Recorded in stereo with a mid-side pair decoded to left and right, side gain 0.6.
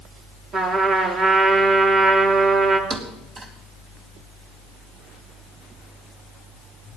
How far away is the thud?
About 4 m.